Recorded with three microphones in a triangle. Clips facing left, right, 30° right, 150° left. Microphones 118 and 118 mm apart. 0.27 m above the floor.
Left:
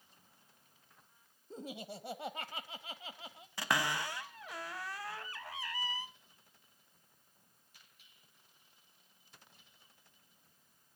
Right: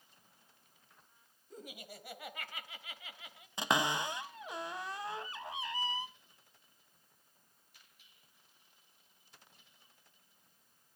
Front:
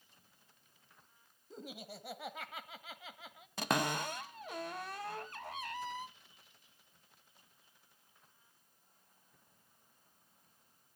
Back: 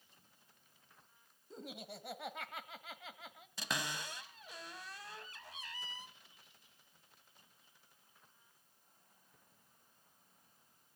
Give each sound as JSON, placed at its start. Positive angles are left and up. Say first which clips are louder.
{"t": 1.5, "sound": "laughter", "louder": "left 5 dB, front 1 dB", "azimuth_deg": 55, "distance_m": 1.1}
{"t": 3.6, "sound": "a cupboard door", "louder": "right 2 dB, front 8 dB", "azimuth_deg": -25, "distance_m": 0.6}